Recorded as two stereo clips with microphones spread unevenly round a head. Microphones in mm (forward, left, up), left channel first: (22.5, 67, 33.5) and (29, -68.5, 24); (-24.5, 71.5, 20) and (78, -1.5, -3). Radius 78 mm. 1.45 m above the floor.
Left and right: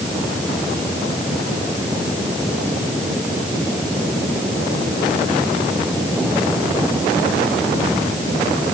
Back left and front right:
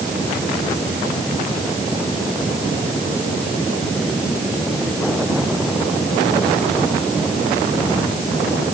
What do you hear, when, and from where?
Only background noise.